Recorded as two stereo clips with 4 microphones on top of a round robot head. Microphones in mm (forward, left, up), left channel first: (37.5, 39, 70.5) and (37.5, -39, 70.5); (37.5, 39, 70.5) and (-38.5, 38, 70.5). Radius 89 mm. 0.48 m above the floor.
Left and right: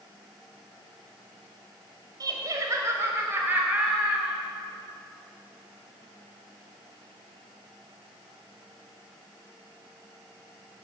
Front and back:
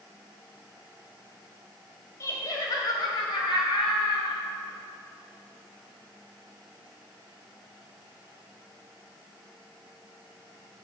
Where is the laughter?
55° right, 2.5 m; by 4.4 s 10° right, 4 m.